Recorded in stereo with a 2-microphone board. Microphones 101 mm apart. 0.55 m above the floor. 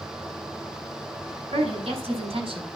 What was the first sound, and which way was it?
A woman speaking, 75° right (ahead or behind).